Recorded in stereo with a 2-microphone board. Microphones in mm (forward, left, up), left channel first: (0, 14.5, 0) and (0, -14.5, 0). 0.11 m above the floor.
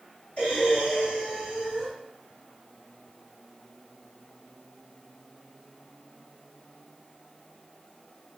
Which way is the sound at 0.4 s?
40° left (ahead or behind).